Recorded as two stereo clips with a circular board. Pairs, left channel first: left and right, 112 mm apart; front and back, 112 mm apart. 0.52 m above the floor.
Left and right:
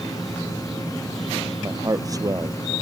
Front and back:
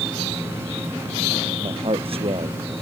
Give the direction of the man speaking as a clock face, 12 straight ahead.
5 o'clock.